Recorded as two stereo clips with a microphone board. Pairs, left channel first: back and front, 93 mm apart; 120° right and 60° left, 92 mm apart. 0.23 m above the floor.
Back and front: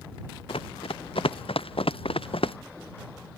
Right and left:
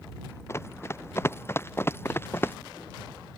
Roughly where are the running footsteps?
Behind.